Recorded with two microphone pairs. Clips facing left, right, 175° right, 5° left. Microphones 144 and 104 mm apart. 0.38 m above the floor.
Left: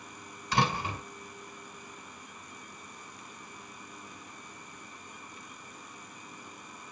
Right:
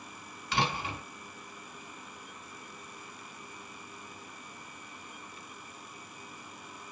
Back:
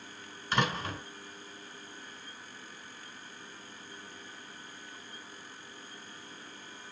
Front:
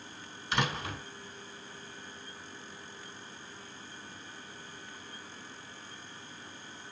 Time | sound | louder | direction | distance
0.5 | a door slam | left 3 dB, back 2 dB | 135° left | 2.5 m